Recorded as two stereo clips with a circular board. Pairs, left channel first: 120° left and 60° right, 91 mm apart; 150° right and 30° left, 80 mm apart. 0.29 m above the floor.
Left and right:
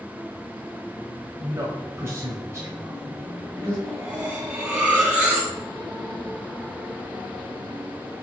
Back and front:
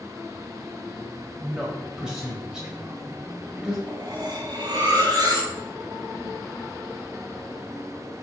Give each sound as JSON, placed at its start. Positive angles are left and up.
{"t": 1.4, "sound": "a man speaking", "azimuth_deg": -40, "distance_m": 1.4}
{"t": 3.9, "sound": "cutlery clinking", "azimuth_deg": 15, "distance_m": 1.9}